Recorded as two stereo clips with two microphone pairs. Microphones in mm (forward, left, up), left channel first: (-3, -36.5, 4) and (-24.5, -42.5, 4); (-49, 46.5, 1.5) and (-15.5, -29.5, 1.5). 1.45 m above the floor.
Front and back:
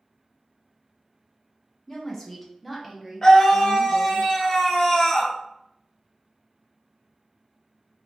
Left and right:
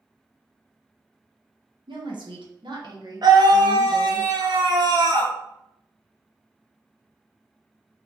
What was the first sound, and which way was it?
A woman speaking, 50° right.